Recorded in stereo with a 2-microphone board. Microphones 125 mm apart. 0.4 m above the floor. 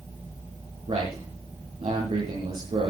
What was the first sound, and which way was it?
A man speaking, 55° right (ahead or behind).